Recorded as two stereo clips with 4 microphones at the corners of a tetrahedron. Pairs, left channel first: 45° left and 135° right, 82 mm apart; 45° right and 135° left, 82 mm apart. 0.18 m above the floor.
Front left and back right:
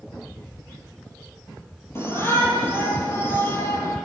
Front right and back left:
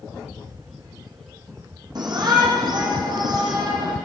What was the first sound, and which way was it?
A shout, 105° left.